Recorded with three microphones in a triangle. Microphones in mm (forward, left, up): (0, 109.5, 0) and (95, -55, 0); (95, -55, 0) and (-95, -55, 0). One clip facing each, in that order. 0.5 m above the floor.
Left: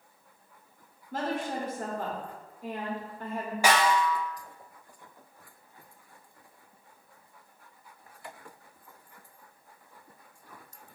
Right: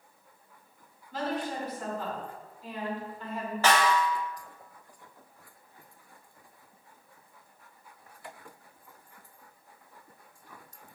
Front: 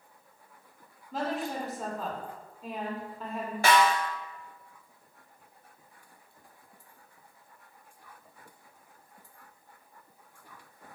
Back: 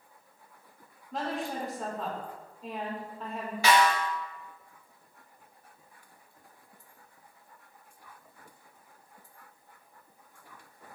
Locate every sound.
1.1 s a woman speaking: 90° left, 1.3 m
3.6 s a snare drum: 40° left, 0.8 m